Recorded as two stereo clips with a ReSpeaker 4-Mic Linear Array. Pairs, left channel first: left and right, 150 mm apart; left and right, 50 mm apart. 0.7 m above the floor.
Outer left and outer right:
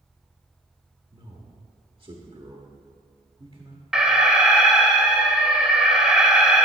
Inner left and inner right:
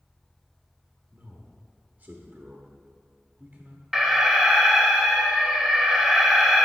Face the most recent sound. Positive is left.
turn(degrees=-5)  # may be behind; listen again after turning